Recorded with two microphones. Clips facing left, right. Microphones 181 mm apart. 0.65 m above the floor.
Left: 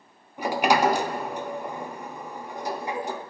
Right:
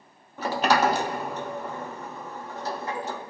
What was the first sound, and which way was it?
A sliding door, 15° left (ahead or behind).